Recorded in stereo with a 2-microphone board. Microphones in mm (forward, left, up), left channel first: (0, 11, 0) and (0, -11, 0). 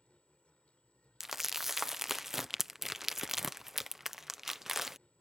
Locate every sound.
0.0 s an insect: 65° left (ahead or behind)
1.2 s crumpling: 10° right (ahead or behind)